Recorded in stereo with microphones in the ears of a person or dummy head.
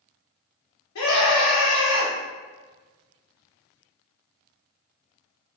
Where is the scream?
70° left (ahead or behind), 0.7 m.